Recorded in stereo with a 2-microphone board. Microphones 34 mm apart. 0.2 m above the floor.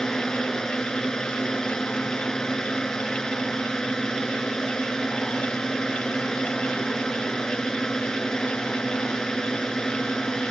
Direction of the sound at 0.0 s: 20° left (ahead or behind).